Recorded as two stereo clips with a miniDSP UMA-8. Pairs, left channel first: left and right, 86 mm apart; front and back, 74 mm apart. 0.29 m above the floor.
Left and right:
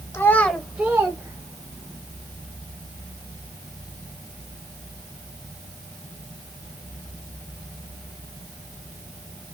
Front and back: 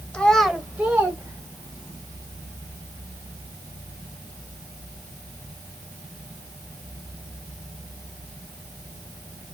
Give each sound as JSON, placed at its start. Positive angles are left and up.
{"t": 0.1, "sound": "a child speaking", "azimuth_deg": 60, "distance_m": 1.0}